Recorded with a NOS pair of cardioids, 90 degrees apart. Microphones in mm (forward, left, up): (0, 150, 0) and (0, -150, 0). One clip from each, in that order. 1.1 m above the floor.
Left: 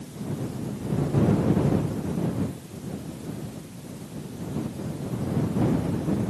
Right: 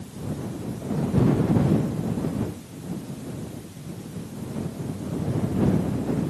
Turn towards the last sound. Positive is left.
No sound to turn to.